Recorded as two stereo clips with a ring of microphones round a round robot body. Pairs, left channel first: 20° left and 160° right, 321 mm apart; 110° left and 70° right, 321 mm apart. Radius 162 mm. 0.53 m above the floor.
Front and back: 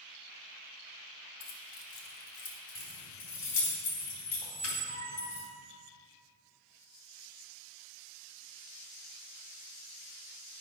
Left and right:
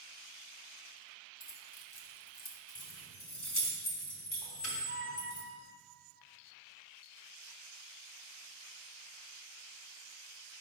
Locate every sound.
1.4 s keys jangling: 50° left, 1.8 m; by 3.5 s 85° left, 2.5 m
2.8 s keys jangling: 70° left, 3 m
4.4 s a squeak: 125° left, 1.5 m